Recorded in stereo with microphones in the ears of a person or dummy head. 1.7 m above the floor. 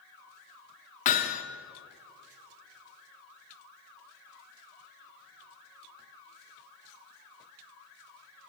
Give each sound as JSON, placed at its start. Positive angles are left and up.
{"t": 1.1, "sound": "hammering", "side_deg": 45, "distance_m": 1.9}